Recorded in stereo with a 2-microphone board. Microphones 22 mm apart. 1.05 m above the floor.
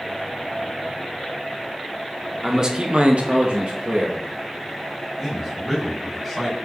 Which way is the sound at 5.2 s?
15° right (ahead or behind).